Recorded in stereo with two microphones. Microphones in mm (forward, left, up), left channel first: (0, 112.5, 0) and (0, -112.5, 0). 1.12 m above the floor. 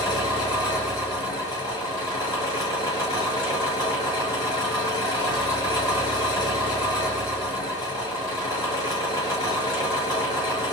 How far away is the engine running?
About 1.3 m.